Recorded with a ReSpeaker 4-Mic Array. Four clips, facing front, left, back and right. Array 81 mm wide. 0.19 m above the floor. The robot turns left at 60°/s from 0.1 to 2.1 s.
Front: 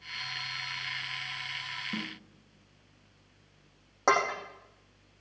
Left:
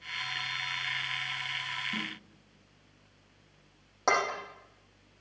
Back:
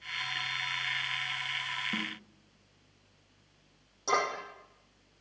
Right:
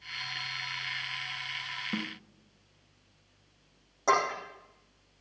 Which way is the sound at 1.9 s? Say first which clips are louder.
Right 5 dB, front 1 dB; 110° right.